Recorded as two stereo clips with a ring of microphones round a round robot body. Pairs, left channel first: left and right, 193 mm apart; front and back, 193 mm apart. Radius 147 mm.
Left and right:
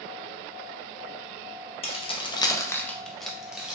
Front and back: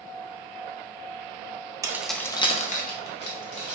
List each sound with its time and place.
1.8 s keys jangling: 120° left, 0.5 m; by 3.8 s 5° right, 1.0 m